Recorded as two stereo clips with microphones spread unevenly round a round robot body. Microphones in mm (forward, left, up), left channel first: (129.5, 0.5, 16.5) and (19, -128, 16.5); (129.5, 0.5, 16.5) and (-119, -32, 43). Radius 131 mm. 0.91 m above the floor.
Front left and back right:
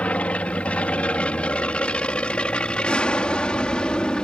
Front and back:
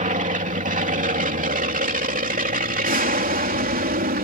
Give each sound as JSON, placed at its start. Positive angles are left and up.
{"t": 0.0, "sound": "an aircraft", "azimuth_deg": 130}